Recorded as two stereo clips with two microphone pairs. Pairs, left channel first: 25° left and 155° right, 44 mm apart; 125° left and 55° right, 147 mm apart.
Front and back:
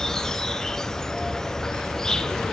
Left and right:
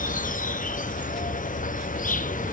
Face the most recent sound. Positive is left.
turn(degrees=100)